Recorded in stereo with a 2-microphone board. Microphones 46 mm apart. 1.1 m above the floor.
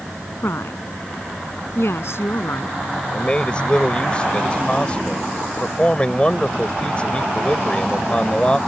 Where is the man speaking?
25° left (ahead or behind).